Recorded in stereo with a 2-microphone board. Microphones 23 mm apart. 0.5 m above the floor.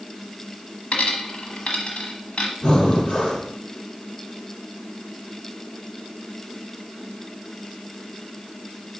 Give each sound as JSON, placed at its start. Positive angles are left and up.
{"t": 0.9, "sound": "a dropped coin", "side_deg": 55, "distance_m": 1.2}
{"t": 2.6, "sound": "breathing", "side_deg": 60, "distance_m": 4.5}